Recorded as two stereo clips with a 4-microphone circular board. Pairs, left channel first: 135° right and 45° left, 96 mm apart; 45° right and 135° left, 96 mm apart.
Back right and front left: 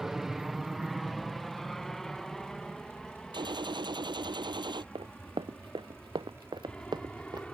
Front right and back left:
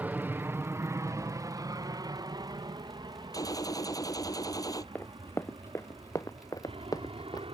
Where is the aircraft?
125° left; by 7.5 s 145° left.